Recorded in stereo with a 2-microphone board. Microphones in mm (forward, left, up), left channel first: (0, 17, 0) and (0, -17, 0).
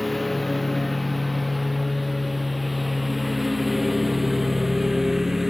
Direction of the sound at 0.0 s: 5° left (ahead or behind).